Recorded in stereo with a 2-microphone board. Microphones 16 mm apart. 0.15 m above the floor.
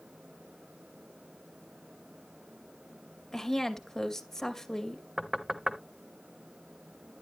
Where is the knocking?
25° right (ahead or behind), 1.0 m.